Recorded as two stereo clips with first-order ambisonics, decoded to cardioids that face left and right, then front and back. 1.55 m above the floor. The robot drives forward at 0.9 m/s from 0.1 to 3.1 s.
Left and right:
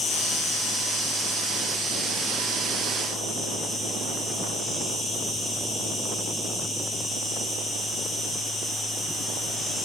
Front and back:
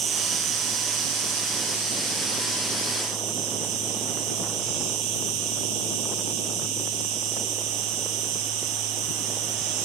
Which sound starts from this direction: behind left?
An insect, at 0.0 s.